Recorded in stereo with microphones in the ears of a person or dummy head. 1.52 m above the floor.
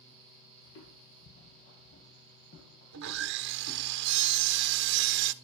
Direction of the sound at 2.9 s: 55° right (ahead or behind).